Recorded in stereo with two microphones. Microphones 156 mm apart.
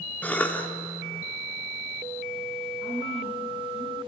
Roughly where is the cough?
Centre.